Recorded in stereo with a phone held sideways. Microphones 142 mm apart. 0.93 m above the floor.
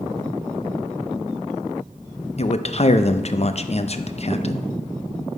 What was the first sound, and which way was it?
A man speaking, 50° left (ahead or behind).